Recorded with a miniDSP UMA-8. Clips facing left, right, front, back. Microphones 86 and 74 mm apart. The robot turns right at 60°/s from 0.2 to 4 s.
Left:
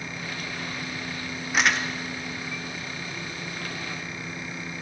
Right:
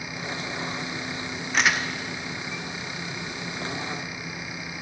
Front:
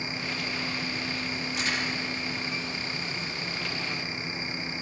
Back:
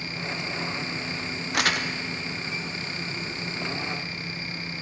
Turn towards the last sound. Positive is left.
turn(degrees=-40)